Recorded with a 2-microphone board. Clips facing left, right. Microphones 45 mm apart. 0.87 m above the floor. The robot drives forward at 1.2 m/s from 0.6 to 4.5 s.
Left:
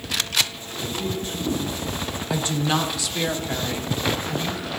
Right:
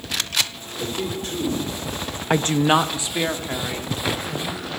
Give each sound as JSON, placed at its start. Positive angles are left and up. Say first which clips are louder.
{"t": 0.8, "sound": "a man speaking", "louder": "right 1 dB", "side_deg": -75, "distance_m": 3.0}
{"t": 2.3, "sound": "a woman speaking", "louder": "right 6 dB", "side_deg": -55, "distance_m": 0.6}